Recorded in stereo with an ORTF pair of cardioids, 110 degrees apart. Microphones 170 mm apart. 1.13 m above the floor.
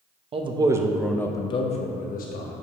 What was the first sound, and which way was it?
A man speaking, 35° right.